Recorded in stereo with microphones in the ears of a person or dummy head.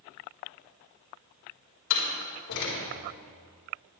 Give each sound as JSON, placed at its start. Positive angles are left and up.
{"t": 1.9, "sound": "a door slam", "side_deg": 65, "distance_m": 3.5}